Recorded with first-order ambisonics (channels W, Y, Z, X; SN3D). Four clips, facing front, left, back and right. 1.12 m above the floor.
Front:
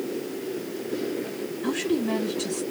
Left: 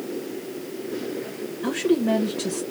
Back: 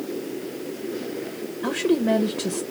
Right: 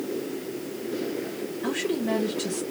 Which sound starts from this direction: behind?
A woman speaking, at 1.6 s.